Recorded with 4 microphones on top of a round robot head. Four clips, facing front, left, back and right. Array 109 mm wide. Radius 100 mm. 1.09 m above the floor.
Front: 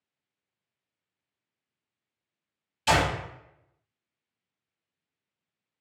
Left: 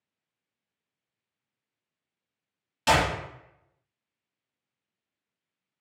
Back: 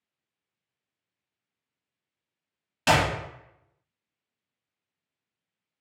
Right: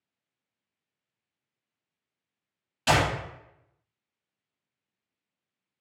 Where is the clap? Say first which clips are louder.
Left 1 dB, back 1 dB; 175° left, 1.6 m.